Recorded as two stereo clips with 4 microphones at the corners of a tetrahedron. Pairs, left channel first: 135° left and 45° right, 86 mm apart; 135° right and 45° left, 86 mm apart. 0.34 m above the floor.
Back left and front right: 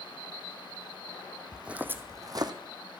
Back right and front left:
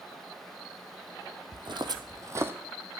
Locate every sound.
1.5 s footsteps: 35° left, 0.9 m; by 2.5 s 15° right, 1.0 m